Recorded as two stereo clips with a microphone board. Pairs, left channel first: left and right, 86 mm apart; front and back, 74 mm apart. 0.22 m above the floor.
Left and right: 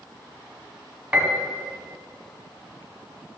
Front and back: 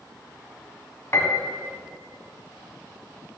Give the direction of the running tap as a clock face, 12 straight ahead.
I don't hear a running tap.